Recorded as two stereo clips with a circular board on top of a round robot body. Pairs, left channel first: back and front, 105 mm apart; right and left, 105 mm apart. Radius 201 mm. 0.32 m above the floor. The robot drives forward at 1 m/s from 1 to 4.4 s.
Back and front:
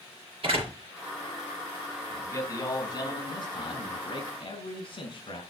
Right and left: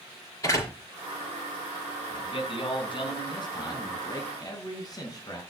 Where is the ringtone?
No ringtone in this recording.